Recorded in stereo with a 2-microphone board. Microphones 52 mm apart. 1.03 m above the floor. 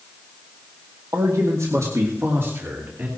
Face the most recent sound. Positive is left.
turn(degrees=-40)  # may be behind; listen again after turning